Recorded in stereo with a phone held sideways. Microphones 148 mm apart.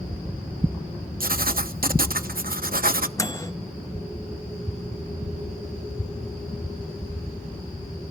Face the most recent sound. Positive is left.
turn(degrees=25)  # may be behind; listen again after turning